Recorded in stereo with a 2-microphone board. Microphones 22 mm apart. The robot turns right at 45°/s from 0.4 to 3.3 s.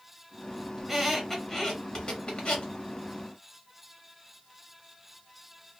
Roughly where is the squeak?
Centre.